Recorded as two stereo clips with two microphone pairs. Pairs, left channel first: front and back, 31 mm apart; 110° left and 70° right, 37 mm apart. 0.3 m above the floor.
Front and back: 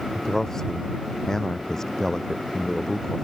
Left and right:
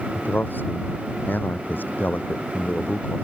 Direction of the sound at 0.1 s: 80° left.